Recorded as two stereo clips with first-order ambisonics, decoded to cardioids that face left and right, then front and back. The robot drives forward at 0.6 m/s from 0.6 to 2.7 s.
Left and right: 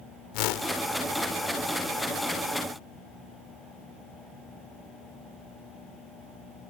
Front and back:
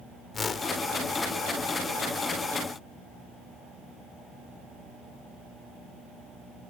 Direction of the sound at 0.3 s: 65° left.